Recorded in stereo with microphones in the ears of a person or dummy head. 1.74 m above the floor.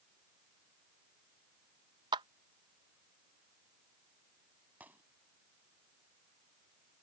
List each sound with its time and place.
2.1 s a clap: 20° right (ahead or behind)
4.8 s a gunshot: 5° right (ahead or behind)